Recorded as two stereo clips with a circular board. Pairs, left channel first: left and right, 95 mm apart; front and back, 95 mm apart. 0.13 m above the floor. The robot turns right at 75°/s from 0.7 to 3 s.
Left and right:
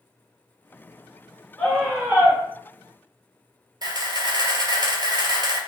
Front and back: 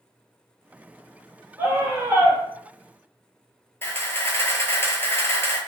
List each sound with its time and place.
1.6 s a scream: 160° left, 1.3 m; by 2.4 s 145° right, 1.3 m
3.8 s a camera shutter: 60° right, 0.6 m